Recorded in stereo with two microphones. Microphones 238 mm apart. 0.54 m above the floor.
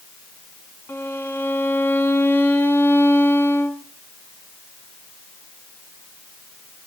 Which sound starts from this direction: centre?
A violin, at 0.9 s.